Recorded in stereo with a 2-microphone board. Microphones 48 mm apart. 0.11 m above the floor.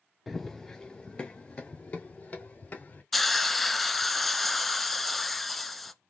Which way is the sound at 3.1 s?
Centre (ahead or behind).